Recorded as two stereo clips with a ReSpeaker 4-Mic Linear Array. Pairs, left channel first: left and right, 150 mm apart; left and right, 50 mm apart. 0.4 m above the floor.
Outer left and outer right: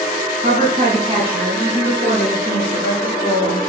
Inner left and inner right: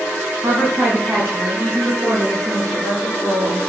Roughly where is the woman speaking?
Right.